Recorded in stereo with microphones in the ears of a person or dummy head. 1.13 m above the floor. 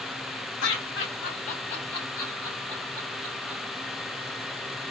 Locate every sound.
0.6 s laughter: 65° left (ahead or behind), 1.6 m; by 3.6 s 35° right (ahead or behind), 2.5 m